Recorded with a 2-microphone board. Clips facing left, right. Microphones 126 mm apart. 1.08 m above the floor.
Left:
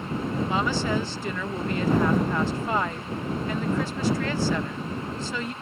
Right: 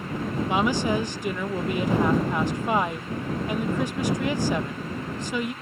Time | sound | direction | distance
0.5 | a woman speaking | 15° right (ahead or behind) | ?